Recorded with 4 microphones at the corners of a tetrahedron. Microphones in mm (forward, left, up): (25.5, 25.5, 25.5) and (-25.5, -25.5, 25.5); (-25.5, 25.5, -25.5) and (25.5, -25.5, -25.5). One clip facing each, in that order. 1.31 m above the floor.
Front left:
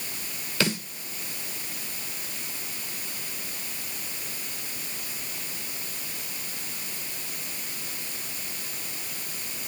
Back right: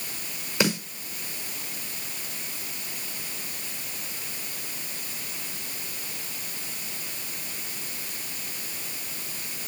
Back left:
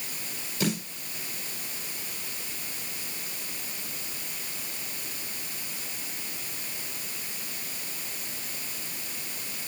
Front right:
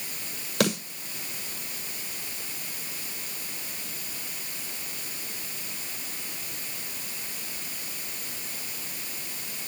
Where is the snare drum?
65° right, 6.5 m.